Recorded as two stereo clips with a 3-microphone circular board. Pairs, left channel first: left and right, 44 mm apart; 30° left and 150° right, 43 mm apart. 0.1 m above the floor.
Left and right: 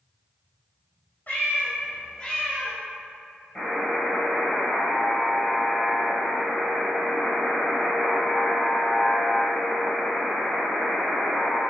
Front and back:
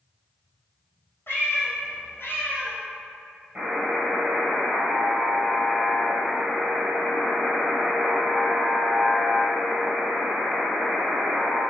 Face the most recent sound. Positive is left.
turn(degrees=165)